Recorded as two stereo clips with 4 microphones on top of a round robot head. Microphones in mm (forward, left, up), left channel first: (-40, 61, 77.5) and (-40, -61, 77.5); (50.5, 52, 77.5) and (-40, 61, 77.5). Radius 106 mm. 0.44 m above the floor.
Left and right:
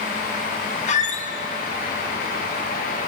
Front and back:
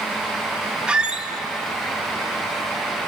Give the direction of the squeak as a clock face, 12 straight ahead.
9 o'clock.